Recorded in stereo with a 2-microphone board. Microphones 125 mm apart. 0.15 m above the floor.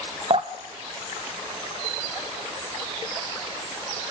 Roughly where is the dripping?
Right.